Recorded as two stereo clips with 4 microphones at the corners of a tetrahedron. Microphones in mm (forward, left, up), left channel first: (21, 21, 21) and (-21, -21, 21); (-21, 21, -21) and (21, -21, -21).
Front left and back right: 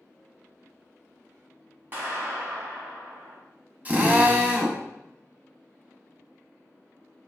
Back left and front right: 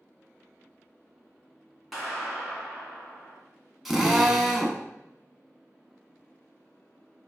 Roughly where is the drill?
Behind right.